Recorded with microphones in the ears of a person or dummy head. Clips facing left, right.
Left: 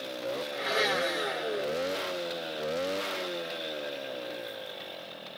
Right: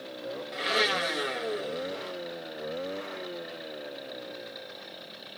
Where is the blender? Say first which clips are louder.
Right 2 dB; 45° right (ahead or behind), 1.0 m.